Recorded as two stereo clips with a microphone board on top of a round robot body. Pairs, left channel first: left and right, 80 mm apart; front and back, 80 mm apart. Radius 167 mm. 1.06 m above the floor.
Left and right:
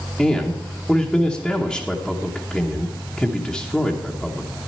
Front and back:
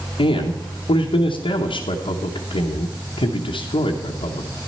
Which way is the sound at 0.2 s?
Straight ahead.